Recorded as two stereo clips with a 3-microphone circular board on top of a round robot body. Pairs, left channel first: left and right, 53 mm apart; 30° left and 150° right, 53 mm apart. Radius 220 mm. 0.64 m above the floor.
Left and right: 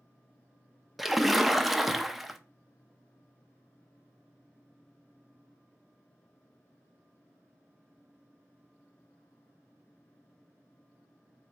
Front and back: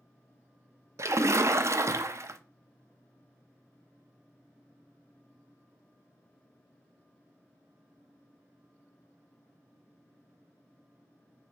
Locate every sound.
1.0 s a splash: 175° right, 0.5 m